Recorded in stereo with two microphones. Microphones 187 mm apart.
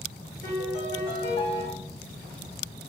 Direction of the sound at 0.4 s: 60° left (ahead or behind).